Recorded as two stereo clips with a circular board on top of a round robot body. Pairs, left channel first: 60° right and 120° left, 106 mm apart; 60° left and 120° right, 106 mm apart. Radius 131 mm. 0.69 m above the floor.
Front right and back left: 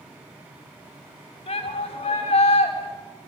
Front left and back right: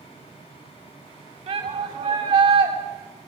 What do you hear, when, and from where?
1.5 s a shout: 95° right, 6.5 m